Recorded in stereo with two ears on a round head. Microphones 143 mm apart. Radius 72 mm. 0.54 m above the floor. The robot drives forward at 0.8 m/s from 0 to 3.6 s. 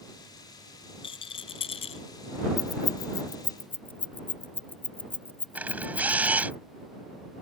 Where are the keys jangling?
20° left (ahead or behind); by 6.5 s 15° left (ahead or behind).